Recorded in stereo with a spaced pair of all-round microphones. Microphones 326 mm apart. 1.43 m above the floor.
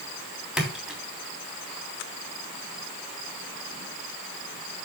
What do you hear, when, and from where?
0.6 s a splash: centre (ahead or behind), 3.5 m